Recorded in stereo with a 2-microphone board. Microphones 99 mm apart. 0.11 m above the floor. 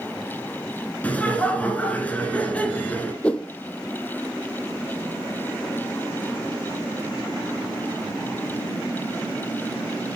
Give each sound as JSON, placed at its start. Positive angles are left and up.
{"t": 1.0, "sound": "laughter", "side_deg": 15, "distance_m": 1.3}
{"t": 3.2, "sound": "a whoosh", "side_deg": 10, "distance_m": 0.5}